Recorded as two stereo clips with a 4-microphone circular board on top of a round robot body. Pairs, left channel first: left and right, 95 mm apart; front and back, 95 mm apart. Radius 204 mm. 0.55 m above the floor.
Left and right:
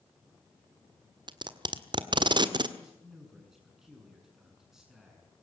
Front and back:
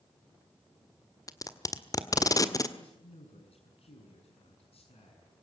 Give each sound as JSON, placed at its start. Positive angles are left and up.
{"t": 1.3, "sound": "tape being pulled", "azimuth_deg": -50, "distance_m": 1.8}
{"t": 2.8, "sound": "a man speaking", "azimuth_deg": -5, "distance_m": 6.5}